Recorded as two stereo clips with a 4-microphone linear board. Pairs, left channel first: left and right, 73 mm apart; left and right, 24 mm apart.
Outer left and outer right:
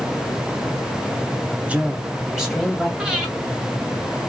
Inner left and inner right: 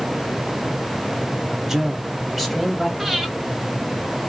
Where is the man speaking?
20° right (ahead or behind), 0.8 m; by 2.9 s 5° right (ahead or behind), 1.8 m.